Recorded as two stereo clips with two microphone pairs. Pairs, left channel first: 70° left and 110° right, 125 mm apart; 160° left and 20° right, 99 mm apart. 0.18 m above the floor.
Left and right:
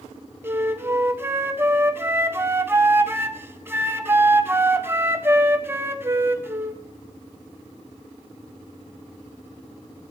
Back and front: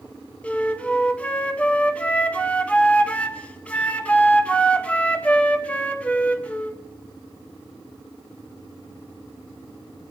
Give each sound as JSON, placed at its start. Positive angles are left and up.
{"t": 0.4, "sound": "a flute", "azimuth_deg": -150, "distance_m": 0.8}